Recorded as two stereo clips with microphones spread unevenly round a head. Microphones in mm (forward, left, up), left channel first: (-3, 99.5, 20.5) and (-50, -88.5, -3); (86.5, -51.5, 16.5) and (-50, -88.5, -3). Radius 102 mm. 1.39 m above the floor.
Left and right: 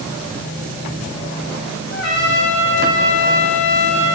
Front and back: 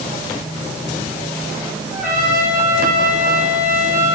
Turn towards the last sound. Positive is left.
turn(degrees=110)